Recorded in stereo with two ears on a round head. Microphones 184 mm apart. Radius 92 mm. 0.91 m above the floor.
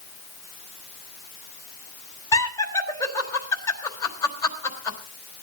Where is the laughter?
15° left (ahead or behind), 3.5 m.